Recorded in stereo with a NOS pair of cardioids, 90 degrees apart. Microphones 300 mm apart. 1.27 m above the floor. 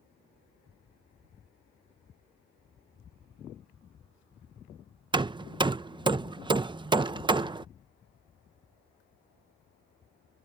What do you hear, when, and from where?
5.1 s hammering: 15° right